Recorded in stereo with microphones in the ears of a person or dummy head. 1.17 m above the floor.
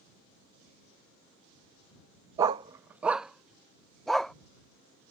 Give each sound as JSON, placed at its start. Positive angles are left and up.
{"t": 2.4, "sound": "a dog barking", "side_deg": -10}